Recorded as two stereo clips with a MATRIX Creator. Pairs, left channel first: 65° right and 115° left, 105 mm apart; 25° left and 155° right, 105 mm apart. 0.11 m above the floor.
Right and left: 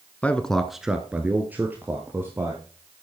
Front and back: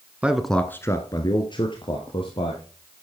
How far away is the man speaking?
About 1.1 m.